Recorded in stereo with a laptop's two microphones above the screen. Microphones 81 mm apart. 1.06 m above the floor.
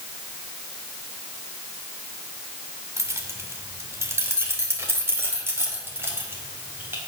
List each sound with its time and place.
3.0 s keys jangling: 35° right (ahead or behind), 2 m; by 7.0 s 30° right (ahead or behind), 4 m